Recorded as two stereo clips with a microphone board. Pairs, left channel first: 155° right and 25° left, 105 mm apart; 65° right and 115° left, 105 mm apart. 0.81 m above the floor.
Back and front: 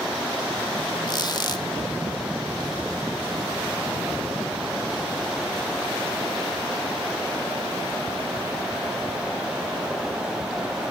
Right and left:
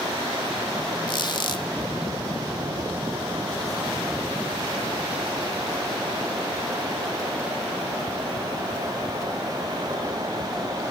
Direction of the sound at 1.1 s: 110° right.